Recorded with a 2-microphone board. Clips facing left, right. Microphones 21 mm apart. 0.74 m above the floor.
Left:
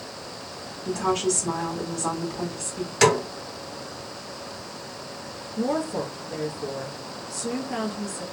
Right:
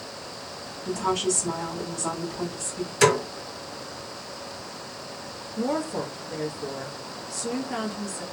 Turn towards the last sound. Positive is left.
turn(degrees=-5)  # may be behind; listen again after turning